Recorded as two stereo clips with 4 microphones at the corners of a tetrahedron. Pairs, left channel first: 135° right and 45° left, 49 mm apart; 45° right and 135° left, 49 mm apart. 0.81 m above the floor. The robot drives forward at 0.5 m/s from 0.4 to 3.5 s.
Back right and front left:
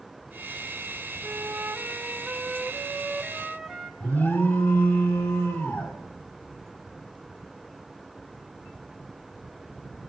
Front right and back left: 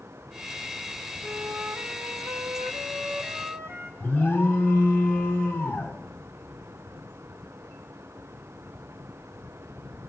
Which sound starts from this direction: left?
A flute, at 1.2 s.